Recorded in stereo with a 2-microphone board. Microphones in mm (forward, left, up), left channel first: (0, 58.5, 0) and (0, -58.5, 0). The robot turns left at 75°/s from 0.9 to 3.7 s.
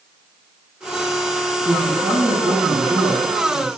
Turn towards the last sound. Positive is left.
turn(degrees=-170)